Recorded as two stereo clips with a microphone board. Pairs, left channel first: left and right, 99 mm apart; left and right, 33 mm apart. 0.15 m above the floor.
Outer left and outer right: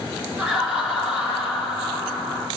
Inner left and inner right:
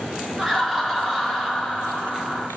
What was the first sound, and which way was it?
Laughter, 10° right (ahead or behind).